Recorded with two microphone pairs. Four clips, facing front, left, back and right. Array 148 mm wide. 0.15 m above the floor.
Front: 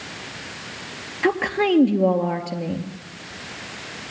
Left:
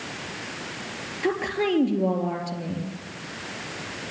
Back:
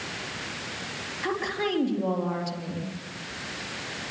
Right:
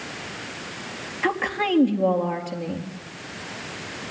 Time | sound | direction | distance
1.2 | a woman speaking | 10° right | 3 m